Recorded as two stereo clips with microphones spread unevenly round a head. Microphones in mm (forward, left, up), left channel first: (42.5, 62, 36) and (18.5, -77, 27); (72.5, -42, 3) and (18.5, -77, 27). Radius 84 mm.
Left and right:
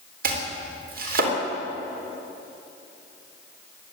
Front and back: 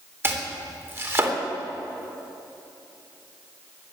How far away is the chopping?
About 3.5 m.